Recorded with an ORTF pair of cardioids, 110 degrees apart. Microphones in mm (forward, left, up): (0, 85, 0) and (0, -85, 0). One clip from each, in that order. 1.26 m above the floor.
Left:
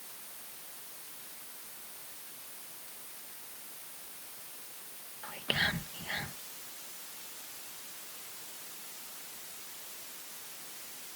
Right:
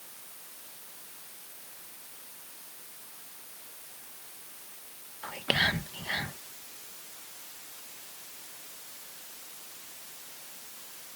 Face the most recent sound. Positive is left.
turn(degrees=-30)